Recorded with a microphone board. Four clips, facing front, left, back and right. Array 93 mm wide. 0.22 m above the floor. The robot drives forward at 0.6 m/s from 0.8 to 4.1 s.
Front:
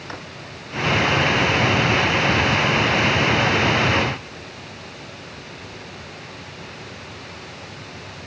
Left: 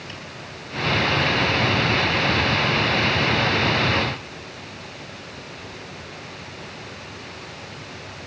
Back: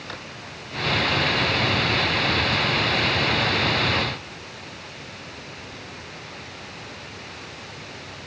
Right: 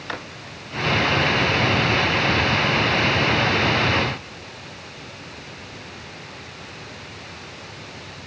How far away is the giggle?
I don't hear a giggle.